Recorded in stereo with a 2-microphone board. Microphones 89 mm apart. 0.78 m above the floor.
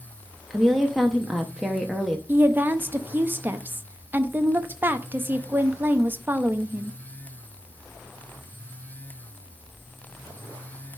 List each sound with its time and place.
0.5 s a woman speaking: 5° right (ahead or behind), 0.8 m
2.3 s a woman speaking: 25° right (ahead or behind), 0.7 m